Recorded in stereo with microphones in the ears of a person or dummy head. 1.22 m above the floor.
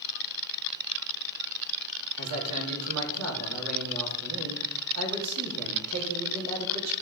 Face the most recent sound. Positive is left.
turn(degrees=-80)